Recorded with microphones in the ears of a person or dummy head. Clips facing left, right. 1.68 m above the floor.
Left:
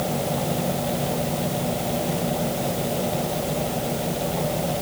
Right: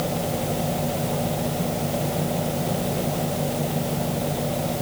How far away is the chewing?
I don't hear chewing.